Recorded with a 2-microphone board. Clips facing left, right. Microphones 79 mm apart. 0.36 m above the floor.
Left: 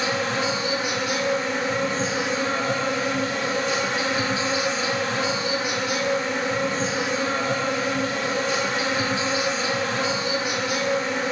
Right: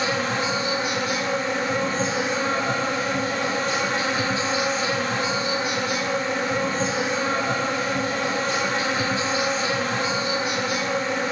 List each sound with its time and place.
0.0 s an insect: 40° right (ahead or behind), 0.8 m